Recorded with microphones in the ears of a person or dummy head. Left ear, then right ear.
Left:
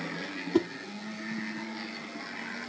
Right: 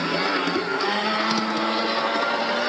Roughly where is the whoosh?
Left.